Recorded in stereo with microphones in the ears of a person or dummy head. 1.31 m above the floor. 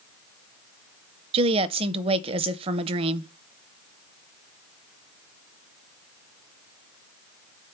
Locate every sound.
1.3 s a woman speaking: 30° right (ahead or behind), 0.6 m